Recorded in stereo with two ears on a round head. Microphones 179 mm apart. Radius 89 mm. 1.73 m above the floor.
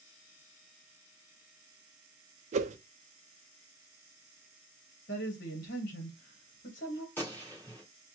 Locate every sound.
2.5 s a whoosh: 35° right (ahead or behind), 0.5 m
5.1 s a woman speaking: 45° left (ahead or behind), 1.4 m
7.2 s a gunshot: 10° left (ahead or behind), 2 m